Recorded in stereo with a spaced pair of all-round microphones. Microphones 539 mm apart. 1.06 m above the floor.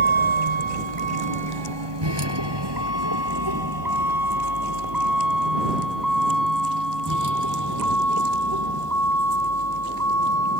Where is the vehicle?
65° right (ahead or behind); by 10.6 s 30° right (ahead or behind).